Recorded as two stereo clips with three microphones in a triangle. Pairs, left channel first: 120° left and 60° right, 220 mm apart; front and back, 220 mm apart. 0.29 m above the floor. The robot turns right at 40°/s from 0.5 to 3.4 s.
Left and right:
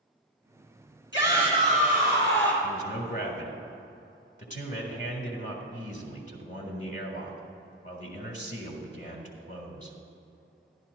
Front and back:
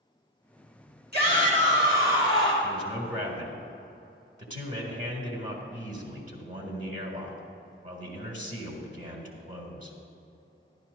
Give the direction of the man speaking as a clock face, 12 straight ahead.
8 o'clock.